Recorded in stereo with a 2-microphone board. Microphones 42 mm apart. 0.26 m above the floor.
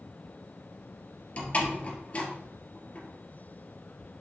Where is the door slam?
30° left (ahead or behind), 4.5 m.